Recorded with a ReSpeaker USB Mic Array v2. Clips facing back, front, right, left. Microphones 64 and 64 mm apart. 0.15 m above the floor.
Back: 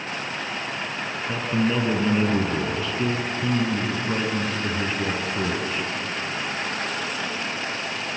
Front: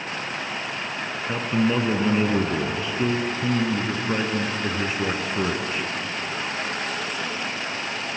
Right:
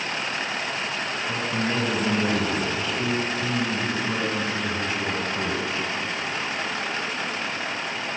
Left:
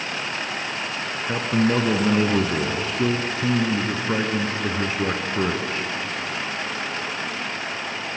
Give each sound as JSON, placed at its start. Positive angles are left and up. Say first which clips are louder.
{"t": 1.3, "sound": "a man speaking", "louder": "front 1 dB, left 7 dB", "azimuth_deg": 70, "distance_m": 1.9}